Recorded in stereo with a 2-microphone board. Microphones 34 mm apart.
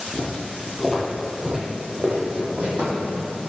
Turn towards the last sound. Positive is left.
turn(degrees=-60)  # may be behind; listen again after turning